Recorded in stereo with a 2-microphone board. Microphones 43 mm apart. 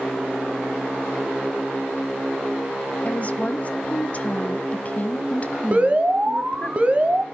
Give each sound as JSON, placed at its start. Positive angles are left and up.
{"t": 3.0, "sound": "a woman speaking", "side_deg": 40, "distance_m": 1.3}
{"t": 5.7, "sound": "an alarm", "side_deg": -30, "distance_m": 1.1}